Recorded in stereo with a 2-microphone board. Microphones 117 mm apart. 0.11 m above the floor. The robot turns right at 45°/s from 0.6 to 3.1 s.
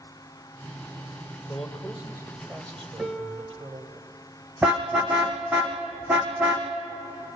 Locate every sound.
1.5 s a man speaking: 170° left, 3 m; by 4.0 s 120° right, 3 m
3.0 s a piano: 5° right (ahead or behind), 1.1 m
4.6 s a car horn: 10° right (ahead or behind), 2.5 m